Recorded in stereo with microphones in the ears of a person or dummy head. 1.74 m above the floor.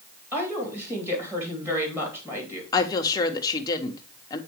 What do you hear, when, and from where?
0.3 s a woman speaking: 15° right (ahead or behind), 3 m
2.7 s a woman speaking: 20° left (ahead or behind), 1.0 m